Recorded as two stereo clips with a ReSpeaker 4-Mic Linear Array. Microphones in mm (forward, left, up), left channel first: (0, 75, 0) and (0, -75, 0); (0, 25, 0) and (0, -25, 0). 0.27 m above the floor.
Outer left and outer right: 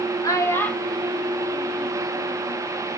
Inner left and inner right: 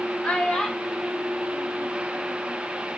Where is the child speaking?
25° left (ahead or behind), 0.7 m; by 2.6 s 40° right (ahead or behind), 1.0 m.